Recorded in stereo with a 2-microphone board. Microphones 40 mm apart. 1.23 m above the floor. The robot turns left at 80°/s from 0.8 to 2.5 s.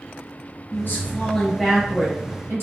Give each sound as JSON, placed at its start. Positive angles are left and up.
{"t": 0.7, "sound": "a woman speaking", "azimuth_deg": 60, "distance_m": 0.9}